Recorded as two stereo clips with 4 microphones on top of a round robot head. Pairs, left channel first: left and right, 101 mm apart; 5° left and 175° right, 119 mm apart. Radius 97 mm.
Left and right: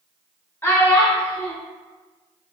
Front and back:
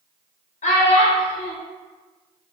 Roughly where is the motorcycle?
I don't hear a motorcycle.